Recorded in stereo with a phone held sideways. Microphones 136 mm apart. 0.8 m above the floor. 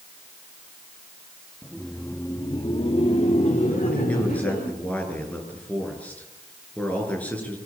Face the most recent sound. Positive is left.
turn(degrees=10)  # may be behind; listen again after turning